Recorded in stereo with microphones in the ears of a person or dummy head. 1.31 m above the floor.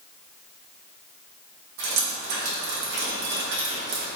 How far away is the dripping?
About 0.8 m.